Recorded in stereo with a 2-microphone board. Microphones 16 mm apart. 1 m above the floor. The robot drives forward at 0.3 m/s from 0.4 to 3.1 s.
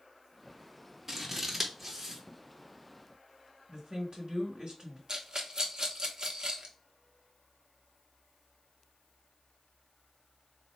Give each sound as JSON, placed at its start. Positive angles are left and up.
{"t": 1.1, "sound": "scissors", "side_deg": -15, "distance_m": 1.2}
{"t": 3.7, "sound": "a woman speaking", "side_deg": -65, "distance_m": 1.6}
{"t": 5.1, "sound": "a rattle", "side_deg": -50, "distance_m": 0.9}